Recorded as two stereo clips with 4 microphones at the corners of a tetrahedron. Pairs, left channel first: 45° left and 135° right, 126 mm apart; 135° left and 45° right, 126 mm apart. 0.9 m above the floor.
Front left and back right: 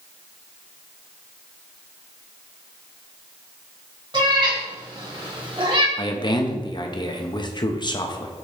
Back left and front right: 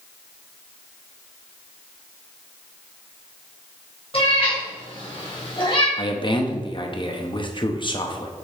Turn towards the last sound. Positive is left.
turn(degrees=90)